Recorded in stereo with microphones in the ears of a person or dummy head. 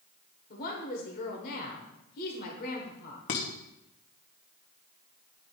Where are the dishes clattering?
30° left (ahead or behind), 0.8 m.